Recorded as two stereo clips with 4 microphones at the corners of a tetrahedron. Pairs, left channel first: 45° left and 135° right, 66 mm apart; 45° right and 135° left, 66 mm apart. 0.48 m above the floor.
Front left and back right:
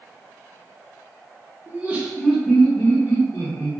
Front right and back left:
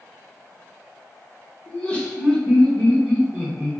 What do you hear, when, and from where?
1.7 s laughter: 105° right, 0.8 m; by 3.7 s 35° left, 1.0 m